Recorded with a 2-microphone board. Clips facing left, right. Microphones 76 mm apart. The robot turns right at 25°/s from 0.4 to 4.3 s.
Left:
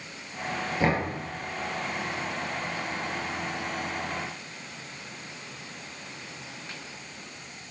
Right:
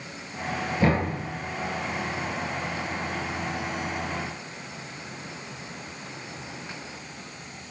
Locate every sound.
0.8 s knocking: 20° left (ahead or behind), 3.5 m; by 1.1 s 15° left (ahead or behind), 3.5 m